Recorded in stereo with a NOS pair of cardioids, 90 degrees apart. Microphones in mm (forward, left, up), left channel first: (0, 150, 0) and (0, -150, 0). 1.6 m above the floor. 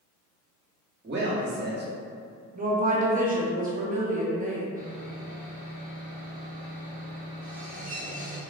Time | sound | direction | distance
1.0 | a man speaking | 40° right | 1.0 m
2.5 | a woman speaking | 30° right | 0.6 m
4.8 | sawing | 30° right | 0.7 m